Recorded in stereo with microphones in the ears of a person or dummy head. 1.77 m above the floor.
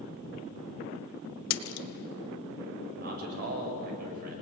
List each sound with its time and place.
1.5 s a splash: 75° left (ahead or behind), 1.4 m
3.0 s a man speaking: 50° right (ahead or behind), 7 m